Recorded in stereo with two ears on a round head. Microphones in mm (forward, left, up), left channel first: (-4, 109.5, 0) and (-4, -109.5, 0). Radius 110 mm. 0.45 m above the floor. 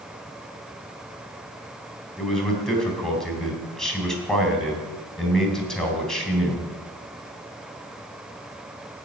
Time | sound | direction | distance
2.2 | a man speaking | 5° left (ahead or behind) | 3.5 m